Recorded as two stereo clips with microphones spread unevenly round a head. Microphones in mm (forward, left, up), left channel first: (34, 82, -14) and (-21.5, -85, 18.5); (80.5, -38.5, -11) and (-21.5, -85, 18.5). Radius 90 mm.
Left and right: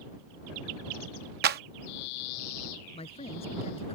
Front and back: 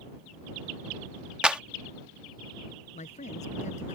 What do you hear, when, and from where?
1.4 s a clap: 70° right
2.9 s a man speaking: 10° left